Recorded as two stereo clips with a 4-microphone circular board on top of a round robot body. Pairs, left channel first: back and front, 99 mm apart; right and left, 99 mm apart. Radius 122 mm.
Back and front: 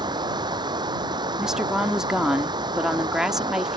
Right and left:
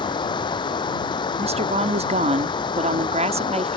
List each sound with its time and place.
0.0 s running water: 45° right
1.4 s a woman speaking: 85° left